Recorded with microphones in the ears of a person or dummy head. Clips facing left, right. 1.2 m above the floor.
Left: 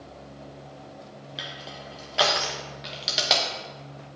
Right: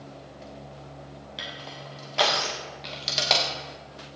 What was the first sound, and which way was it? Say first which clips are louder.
Crushing: even; centre (ahead or behind).